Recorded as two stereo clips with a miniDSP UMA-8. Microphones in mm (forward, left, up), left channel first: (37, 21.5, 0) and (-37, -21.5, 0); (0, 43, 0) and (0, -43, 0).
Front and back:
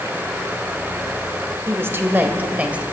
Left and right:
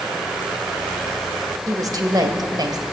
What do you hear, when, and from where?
1.7 s a woman speaking: 105° right, 1.7 m; by 2.8 s 80° right, 2 m